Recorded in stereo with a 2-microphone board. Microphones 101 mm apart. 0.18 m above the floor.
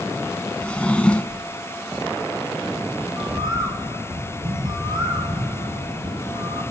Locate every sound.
0.6 s a drawer: 10° left (ahead or behind), 0.6 m
3.2 s a bird: 45° right (ahead or behind), 1.7 m